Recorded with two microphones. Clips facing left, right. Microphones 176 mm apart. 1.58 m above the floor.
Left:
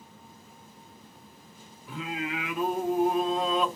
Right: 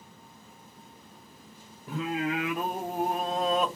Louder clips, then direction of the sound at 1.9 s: Right 4 dB; 45° right (ahead or behind).